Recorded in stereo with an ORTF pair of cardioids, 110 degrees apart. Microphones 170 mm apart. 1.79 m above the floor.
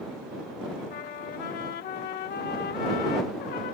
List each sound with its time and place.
0.9 s a trumpet: 65° left